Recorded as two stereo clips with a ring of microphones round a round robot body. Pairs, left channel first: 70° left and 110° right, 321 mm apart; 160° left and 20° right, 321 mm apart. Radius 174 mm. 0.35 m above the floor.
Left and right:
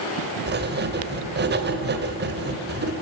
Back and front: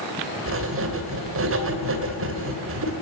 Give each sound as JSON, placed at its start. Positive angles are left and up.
{"t": 0.5, "sound": "writing", "azimuth_deg": -60, "distance_m": 2.0}